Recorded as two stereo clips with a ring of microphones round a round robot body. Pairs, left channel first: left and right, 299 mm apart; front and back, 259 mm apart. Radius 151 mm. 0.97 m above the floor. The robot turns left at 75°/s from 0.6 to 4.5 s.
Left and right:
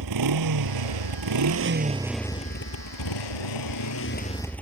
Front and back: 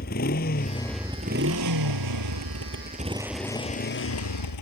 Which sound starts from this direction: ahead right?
A motorcycle, at 0.0 s.